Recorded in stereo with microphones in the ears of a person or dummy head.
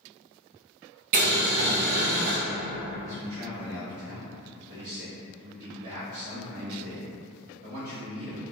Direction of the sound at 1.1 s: 40° right (ahead or behind).